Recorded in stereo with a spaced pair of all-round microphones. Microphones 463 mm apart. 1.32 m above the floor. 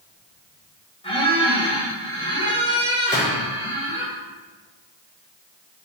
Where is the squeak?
10° left (ahead or behind), 2.5 m.